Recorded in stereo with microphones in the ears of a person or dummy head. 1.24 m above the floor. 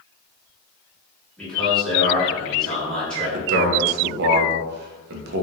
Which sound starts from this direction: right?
A man speaking, at 3.3 s.